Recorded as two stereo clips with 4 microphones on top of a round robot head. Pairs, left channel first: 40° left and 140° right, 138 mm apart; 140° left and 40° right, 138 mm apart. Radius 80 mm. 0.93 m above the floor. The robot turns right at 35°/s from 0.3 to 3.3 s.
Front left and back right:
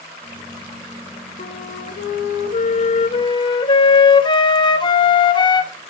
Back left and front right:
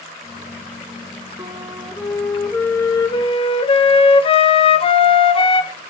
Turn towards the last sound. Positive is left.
turn(degrees=95)